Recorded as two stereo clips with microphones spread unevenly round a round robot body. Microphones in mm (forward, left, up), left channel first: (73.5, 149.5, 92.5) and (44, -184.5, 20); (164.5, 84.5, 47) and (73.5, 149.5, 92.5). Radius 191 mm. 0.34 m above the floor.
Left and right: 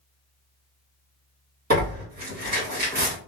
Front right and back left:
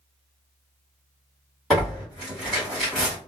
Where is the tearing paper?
100° right, 1.7 m.